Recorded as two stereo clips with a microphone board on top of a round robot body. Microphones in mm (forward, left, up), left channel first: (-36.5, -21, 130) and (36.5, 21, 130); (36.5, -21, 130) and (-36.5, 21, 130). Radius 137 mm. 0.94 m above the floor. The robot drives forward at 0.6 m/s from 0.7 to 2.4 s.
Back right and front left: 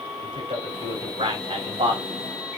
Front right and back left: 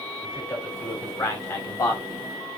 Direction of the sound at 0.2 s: 20° left.